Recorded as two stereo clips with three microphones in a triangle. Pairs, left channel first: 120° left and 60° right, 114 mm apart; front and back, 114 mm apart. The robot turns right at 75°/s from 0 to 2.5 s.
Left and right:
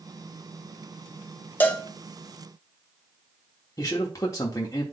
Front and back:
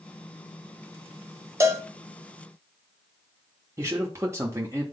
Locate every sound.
1.6 s a cowbell: 170° left, 0.7 m; by 1.9 s 170° right, 0.7 m
3.8 s a man speaking: 145° left, 0.9 m